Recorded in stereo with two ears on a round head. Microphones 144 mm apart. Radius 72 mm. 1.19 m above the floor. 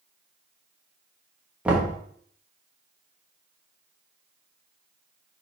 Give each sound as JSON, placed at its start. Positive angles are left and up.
{"t": 1.6, "sound": "knocking", "side_deg": -10, "distance_m": 1.4}